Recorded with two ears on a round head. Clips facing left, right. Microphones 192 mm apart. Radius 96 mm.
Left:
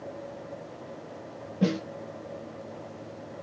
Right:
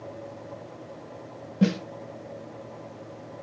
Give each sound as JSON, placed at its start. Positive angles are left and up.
{"t": 1.6, "sound": "a snare drum", "side_deg": -30, "distance_m": 0.6}